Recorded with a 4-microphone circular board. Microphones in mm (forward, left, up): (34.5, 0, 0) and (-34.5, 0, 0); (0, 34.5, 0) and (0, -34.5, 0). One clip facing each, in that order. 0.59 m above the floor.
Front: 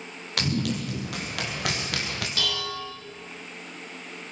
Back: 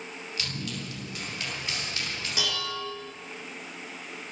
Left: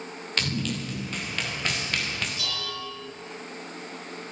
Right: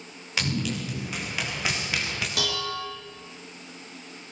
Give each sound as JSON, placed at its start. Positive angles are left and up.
{"t": 0.4, "sound": "running footsteps", "azimuth_deg": -10, "distance_m": 7.5}
{"t": 2.4, "sound": "dishes clattering", "azimuth_deg": -105, "distance_m": 5.5}